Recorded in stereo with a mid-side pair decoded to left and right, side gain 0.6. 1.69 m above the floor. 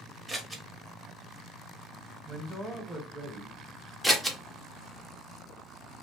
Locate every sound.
0.3 s scissors: 20° right, 1.1 m
2.2 s a man speaking: 5° right, 1.3 m
4.0 s scissors: 5° right, 1.0 m